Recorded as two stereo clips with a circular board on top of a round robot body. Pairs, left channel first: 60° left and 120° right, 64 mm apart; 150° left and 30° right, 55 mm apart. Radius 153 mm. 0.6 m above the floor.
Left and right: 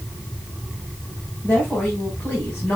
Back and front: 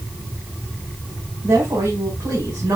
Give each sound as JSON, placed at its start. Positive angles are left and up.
{"t": 1.4, "sound": "a woman speaking", "azimuth_deg": -5, "distance_m": 7.0}